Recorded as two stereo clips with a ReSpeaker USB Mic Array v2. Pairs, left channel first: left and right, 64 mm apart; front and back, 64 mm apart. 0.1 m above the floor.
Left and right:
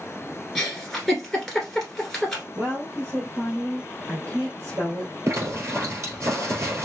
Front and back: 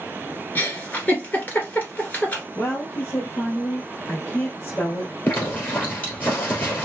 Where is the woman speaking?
55° right, 2 m.